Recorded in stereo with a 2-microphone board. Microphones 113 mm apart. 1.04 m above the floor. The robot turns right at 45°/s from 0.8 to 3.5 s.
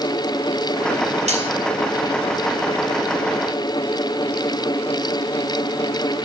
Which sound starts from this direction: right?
Cutlery clinking, at 1.3 s.